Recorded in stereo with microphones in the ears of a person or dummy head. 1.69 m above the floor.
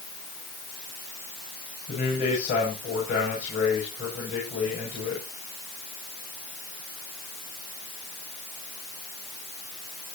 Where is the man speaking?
50° left (ahead or behind), 9 m.